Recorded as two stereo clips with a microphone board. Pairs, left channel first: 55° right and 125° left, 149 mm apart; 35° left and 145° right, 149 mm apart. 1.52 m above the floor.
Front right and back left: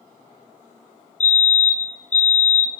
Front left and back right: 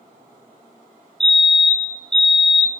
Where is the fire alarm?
55° right, 1.4 m.